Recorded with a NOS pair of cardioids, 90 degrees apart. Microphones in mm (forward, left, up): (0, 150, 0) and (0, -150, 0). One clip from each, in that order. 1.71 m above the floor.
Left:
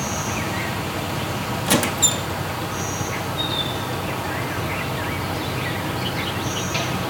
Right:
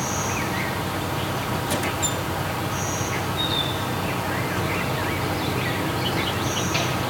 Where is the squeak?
65° left.